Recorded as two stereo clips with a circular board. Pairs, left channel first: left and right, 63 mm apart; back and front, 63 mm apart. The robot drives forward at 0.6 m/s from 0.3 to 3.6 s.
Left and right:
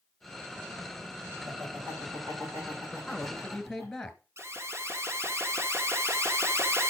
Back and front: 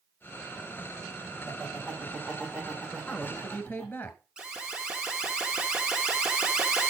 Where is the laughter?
100° right, 6 m; by 3.9 s 115° right, 6 m.